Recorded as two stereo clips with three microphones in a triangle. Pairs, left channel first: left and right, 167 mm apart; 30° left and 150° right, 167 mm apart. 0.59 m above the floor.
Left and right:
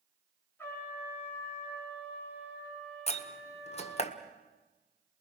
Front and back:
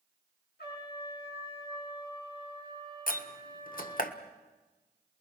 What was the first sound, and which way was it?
A trumpet, 15° left.